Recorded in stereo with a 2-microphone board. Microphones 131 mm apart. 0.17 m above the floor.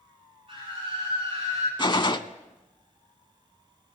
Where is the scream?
45° right (ahead or behind), 5.5 m; by 1.7 s 55° right (ahead or behind), 5.5 m.